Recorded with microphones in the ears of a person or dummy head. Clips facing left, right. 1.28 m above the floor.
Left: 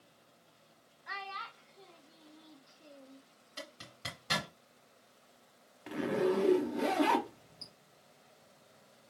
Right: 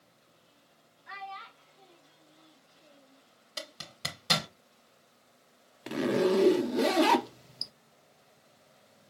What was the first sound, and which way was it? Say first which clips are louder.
A child speaking: right 2 dB; 50° left (ahead or behind).